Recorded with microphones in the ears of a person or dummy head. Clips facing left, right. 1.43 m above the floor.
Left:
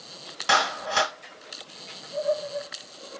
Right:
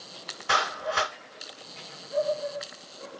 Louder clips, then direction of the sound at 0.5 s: Left 3 dB; 75° left (ahead or behind).